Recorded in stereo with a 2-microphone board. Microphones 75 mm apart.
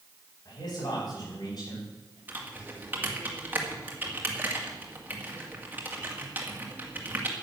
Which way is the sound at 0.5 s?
55° left (ahead or behind).